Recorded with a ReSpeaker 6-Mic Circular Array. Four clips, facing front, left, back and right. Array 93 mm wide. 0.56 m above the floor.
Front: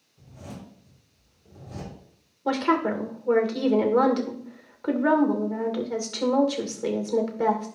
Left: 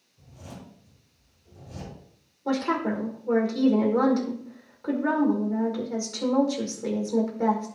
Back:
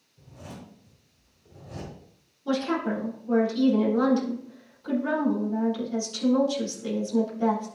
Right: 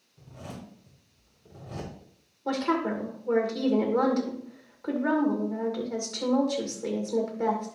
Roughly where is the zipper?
Right.